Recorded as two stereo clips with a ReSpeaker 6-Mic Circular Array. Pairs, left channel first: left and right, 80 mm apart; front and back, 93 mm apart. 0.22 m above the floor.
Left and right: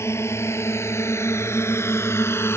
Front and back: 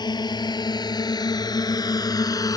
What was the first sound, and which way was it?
A drone, 35° left.